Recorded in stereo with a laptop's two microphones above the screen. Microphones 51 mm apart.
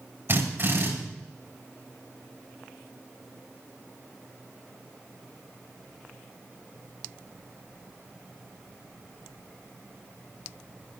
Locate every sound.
0.3 s a drill: 50° right (ahead or behind), 6.5 m